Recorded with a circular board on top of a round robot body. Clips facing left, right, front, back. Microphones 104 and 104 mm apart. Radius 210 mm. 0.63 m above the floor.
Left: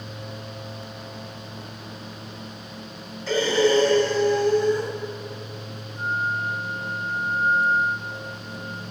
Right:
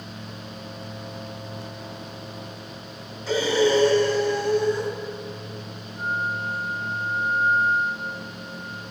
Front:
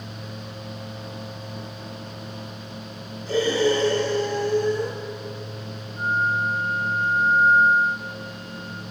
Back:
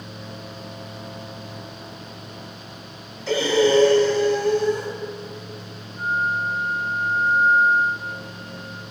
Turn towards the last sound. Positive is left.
turn(degrees=45)